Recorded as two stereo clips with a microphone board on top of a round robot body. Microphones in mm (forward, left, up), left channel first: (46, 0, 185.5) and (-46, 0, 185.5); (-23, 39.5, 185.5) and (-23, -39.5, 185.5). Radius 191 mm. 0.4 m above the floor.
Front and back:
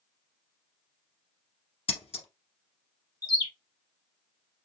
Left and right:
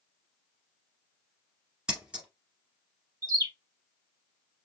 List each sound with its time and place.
1.9 s scissors: 10° right, 1.6 m
3.2 s a bird: 50° right, 1.7 m